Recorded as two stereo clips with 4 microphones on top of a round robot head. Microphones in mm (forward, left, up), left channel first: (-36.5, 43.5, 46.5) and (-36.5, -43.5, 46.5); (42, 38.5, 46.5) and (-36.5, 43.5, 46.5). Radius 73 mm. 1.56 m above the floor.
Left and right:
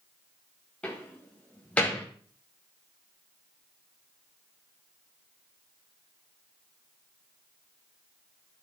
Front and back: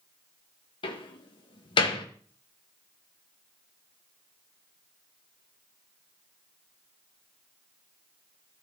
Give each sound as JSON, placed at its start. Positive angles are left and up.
{"t": 0.8, "sound": "a door slam", "azimuth_deg": 10, "distance_m": 1.4}